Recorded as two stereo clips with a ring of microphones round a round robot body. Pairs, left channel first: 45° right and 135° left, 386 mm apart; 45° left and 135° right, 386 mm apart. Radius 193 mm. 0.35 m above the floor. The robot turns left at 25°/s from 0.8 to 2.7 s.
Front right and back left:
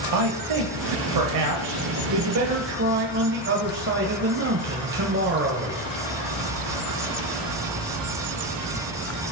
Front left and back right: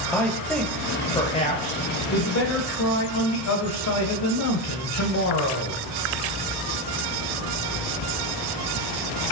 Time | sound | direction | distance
0.1 | a man speaking | 130° left | 1.7 m